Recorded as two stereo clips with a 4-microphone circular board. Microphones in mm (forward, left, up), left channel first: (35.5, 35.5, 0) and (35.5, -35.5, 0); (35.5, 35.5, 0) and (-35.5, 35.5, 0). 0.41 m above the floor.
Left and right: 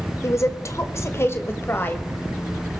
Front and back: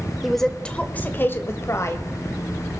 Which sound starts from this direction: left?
A woman speaking, at 0.2 s.